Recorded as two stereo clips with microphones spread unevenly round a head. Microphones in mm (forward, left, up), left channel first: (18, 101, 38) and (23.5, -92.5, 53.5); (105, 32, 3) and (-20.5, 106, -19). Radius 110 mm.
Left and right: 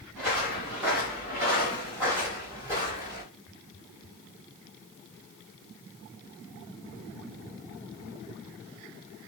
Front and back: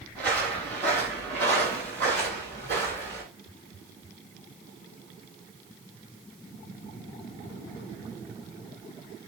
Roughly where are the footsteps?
Behind.